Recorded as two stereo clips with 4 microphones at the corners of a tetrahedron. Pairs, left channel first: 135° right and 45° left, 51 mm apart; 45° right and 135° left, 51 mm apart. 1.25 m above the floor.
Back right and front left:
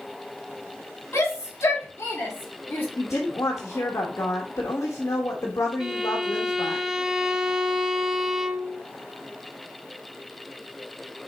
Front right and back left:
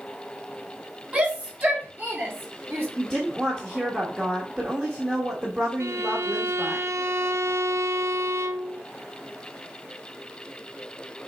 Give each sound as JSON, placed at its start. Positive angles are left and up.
{"t": 1.1, "sound": "a shout", "azimuth_deg": -160, "distance_m": 3.5}
{"t": 3.0, "sound": "a woman speaking", "azimuth_deg": -160, "distance_m": 1.6}
{"t": 5.8, "sound": "a violin", "azimuth_deg": 125, "distance_m": 0.6}